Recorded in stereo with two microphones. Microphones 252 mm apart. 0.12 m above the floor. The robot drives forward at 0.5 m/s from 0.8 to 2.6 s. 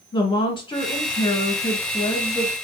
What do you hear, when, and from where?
0.1 s a woman speaking: 20° left (ahead or behind), 1.1 m; by 2.5 s 15° left (ahead or behind), 1.5 m